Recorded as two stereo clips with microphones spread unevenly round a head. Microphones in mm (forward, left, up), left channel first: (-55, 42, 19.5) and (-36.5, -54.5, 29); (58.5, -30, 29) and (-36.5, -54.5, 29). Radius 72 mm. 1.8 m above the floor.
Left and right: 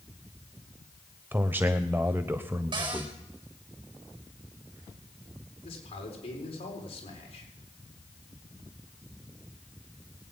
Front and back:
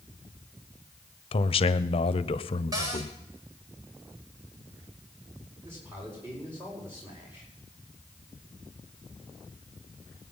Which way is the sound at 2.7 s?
115° right.